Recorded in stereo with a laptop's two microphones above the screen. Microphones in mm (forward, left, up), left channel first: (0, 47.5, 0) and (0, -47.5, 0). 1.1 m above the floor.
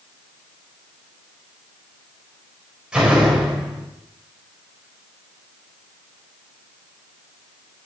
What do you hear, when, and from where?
2.9 s a door slam: 5° right (ahead or behind), 4 m